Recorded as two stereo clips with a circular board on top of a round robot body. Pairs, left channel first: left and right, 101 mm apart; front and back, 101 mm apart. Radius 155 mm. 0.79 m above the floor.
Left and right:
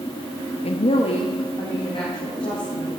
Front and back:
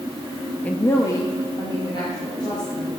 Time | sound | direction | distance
0.6 | a woman speaking | 75° left | 0.8 m